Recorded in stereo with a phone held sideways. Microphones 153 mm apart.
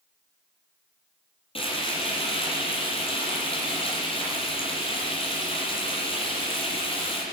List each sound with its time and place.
1.6 s frying: 35° left (ahead or behind), 7 m